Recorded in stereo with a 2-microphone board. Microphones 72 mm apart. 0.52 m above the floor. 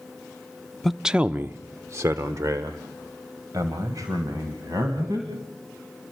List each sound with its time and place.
0.8 s a man speaking: 5° left (ahead or behind), 0.7 m; by 5.3 s 55° right (ahead or behind), 3.5 m